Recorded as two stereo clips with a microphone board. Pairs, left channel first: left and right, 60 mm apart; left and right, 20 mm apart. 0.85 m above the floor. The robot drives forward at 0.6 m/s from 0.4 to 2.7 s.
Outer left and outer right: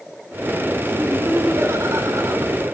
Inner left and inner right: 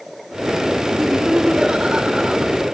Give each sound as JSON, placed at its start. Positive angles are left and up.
{"t": 1.0, "sound": "laughter", "side_deg": -50, "distance_m": 3.0}